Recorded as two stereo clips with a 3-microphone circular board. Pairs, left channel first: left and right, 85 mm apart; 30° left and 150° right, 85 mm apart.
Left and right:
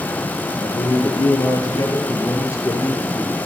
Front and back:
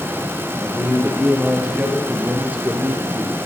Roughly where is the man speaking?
Behind left.